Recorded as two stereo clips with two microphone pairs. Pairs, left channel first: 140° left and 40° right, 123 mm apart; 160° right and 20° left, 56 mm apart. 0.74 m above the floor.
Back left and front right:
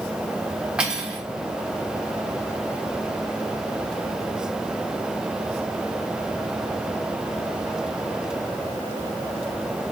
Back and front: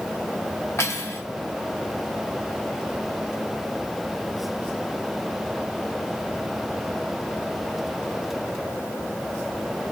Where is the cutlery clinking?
120° right, 0.9 m.